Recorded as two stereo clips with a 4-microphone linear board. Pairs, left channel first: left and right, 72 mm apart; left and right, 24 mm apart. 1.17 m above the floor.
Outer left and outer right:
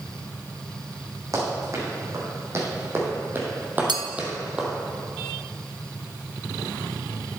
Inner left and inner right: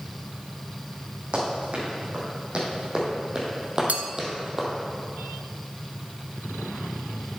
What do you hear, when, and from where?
1.3 s running footsteps: 45° right (ahead or behind), 4 m; by 4.7 s 10° right (ahead or behind), 2 m
3.9 s a clink: 90° right, 0.8 m